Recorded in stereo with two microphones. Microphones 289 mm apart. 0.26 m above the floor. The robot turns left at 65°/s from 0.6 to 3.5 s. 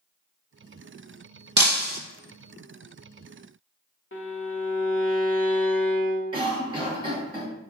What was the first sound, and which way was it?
Breaking glass, 70° right (ahead or behind).